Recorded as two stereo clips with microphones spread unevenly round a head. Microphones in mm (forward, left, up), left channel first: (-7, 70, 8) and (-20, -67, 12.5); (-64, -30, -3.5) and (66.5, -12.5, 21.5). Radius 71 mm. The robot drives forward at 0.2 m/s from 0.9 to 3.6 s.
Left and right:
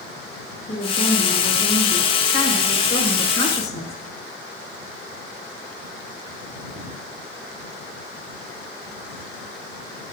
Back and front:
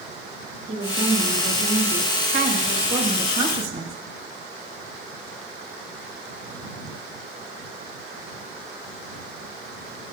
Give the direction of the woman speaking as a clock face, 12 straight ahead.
11 o'clock.